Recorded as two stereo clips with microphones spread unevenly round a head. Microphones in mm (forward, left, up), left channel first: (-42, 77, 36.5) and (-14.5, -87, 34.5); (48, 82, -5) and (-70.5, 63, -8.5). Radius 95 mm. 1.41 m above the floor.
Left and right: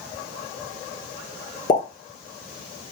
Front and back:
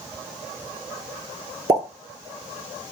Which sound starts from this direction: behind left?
A pop, at 1.7 s.